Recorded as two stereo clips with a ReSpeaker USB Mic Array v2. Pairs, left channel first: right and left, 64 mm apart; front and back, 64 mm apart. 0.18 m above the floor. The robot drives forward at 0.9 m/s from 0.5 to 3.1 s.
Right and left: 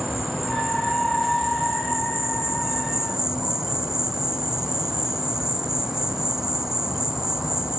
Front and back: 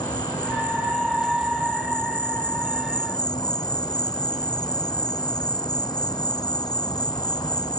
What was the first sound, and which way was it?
An insect, 5° left.